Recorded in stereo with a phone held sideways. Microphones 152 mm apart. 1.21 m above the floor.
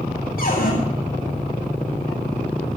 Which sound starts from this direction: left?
A cupboard door, at 0.4 s.